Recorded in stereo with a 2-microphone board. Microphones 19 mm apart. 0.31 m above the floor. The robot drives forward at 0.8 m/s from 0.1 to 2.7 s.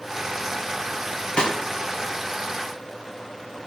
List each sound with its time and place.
1.4 s a snare drum: 60° left (ahead or behind), 2.0 m